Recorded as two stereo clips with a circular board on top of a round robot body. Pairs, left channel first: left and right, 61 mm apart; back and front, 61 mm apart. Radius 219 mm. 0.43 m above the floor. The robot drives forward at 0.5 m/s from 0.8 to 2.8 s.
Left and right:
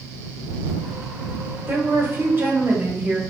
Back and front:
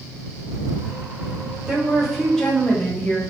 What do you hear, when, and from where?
1.7 s a woman speaking: 70° right, 1.1 m; by 3.2 s 125° right, 1.2 m